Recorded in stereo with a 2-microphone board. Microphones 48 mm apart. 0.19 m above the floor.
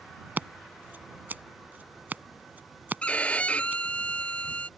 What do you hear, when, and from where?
0.4 s scissors: 40° right (ahead or behind)
3.0 s a violin: 30° left (ahead or behind)